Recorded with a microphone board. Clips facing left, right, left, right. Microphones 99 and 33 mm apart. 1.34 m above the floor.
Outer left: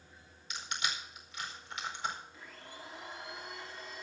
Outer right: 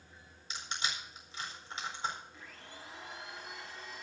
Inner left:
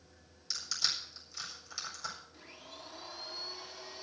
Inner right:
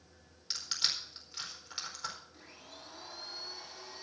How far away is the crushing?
About 4.5 m.